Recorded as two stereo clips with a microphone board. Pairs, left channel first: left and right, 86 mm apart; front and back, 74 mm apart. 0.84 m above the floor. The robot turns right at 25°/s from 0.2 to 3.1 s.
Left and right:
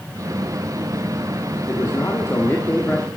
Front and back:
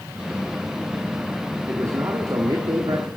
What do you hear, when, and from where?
1.7 s a man speaking: 135° left, 1.8 m; by 3.1 s 170° left, 1.8 m